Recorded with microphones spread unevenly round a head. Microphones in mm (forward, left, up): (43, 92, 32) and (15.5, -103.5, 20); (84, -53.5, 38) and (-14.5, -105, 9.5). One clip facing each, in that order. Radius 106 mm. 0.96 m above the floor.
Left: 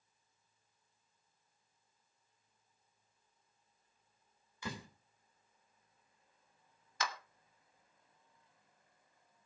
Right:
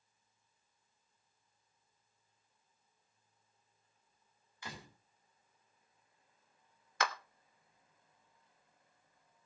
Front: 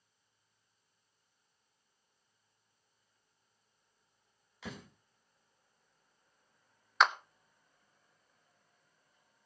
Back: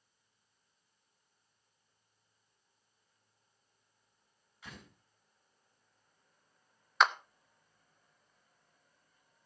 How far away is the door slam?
About 3 m.